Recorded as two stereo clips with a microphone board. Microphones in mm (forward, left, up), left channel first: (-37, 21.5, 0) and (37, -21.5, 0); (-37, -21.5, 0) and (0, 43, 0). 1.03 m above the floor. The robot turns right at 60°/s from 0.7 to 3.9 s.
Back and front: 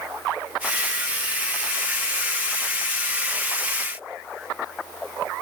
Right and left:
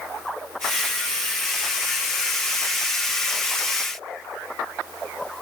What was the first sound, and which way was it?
Only background noise.